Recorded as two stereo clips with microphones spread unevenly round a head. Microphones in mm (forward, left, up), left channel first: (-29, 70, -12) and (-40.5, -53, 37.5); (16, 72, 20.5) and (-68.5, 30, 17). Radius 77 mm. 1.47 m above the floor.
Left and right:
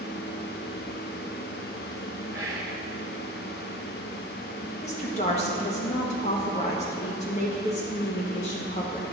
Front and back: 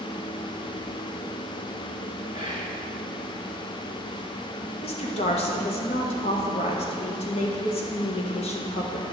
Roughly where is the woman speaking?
Ahead left.